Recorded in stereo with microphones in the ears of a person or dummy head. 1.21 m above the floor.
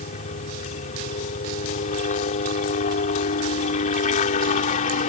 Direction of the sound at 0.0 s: 40° left (ahead or behind).